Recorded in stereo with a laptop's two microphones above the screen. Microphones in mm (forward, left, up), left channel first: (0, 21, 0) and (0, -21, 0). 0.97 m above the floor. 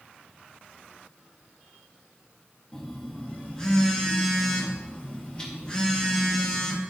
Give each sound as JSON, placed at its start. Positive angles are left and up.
{"t": 2.7, "sound": "a phone buzzing", "side_deg": 20, "distance_m": 1.1}